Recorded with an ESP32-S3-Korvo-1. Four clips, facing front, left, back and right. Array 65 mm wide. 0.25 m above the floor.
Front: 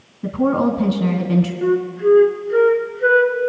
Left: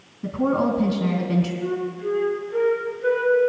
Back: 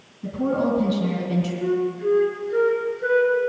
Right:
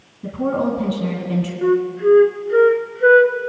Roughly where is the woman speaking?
Ahead.